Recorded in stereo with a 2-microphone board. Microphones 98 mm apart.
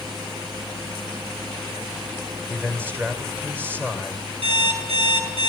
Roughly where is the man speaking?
Right.